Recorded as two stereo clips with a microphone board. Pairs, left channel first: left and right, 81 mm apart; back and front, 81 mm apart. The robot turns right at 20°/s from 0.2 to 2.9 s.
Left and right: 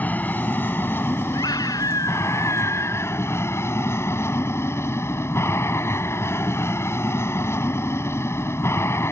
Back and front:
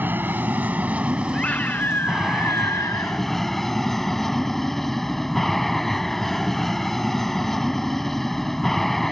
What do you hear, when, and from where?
0.0 s an aircraft: 40° left; by 9.1 s 95° left
1.3 s a scream: 105° left; by 3.2 s 140° left